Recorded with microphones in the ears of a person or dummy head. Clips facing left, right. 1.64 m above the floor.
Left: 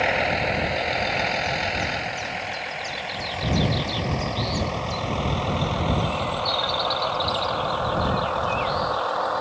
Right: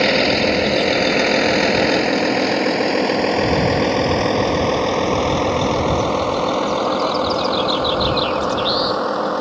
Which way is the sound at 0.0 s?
60° right (ahead or behind).